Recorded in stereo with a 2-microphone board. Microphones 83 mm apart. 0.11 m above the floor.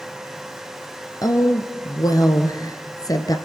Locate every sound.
1.2 s a woman speaking: 50° left (ahead or behind), 2 m